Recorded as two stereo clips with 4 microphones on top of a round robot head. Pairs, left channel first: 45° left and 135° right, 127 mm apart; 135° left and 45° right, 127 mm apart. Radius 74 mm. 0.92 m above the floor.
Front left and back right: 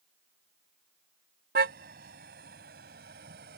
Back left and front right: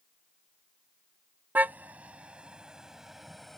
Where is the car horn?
120° right; by 3.6 s 135° right.